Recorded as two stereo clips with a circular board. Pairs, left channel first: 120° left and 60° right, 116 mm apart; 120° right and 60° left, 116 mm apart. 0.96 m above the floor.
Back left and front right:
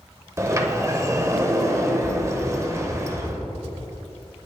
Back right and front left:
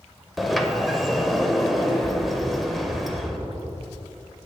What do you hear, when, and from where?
0.4 s a sliding door: 30° right, 0.7 m